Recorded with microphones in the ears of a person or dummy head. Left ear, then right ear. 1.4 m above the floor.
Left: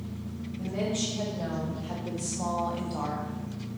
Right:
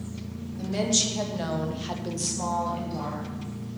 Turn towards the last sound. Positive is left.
turn(degrees=25)  # may be behind; listen again after turning